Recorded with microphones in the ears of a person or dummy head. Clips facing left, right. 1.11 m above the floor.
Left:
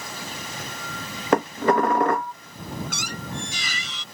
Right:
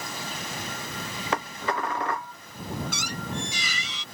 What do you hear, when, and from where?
1.3 s dishes clattering: 45° left (ahead or behind)
2.9 s a squeak: 45° left (ahead or behind)